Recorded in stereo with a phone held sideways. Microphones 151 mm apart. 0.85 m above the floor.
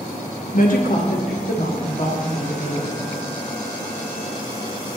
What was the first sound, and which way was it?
A woman speaking, 60° left (ahead or behind).